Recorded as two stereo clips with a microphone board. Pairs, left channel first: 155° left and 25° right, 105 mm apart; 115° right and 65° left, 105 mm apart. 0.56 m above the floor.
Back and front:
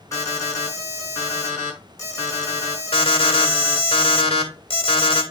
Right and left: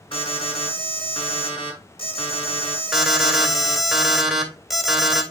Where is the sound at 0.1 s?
145° right, 4.5 m.